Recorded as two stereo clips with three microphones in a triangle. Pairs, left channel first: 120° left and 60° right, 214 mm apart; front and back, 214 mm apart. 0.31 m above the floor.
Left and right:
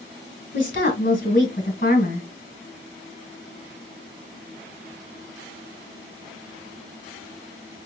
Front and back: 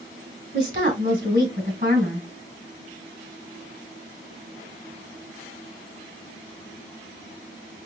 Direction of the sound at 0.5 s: 150° left.